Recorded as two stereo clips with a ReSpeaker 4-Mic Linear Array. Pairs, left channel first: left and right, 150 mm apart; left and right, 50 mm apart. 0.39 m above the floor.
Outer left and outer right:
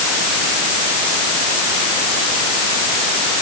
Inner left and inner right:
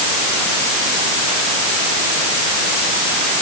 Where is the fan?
I don't hear a fan.